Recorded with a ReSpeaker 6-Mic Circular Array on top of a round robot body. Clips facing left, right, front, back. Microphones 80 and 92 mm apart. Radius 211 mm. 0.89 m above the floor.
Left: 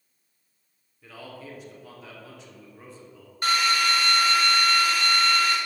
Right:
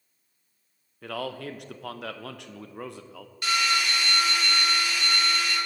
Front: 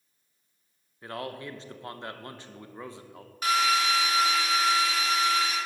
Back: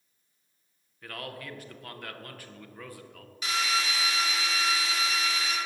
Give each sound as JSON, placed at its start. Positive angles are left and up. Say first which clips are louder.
{"t": 1.0, "sound": "a man speaking", "louder": "right 9 dB, front 4 dB", "azimuth_deg": -65, "distance_m": 0.8}
{"t": 3.4, "sound": "a drill", "louder": "left 3 dB, front 6 dB", "azimuth_deg": 40, "distance_m": 2.0}